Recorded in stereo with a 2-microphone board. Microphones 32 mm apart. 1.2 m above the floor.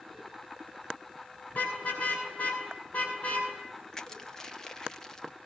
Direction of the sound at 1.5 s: 50° left (ahead or behind).